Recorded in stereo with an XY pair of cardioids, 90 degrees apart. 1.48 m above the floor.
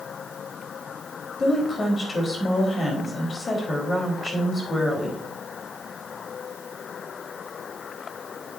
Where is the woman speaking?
40° left, 4 m.